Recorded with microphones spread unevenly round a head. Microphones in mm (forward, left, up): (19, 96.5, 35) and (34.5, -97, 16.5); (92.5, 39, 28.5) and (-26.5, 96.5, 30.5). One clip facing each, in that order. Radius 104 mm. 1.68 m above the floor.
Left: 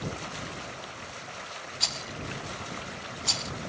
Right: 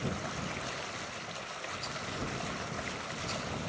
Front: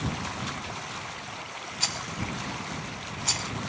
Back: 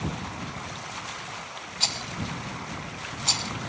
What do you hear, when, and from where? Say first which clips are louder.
1.8 s a rattle: even, back 1 dB; 95° left